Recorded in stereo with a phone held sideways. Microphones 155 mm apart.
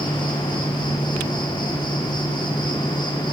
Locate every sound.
0.0 s an insect: 30° left (ahead or behind), 4.5 m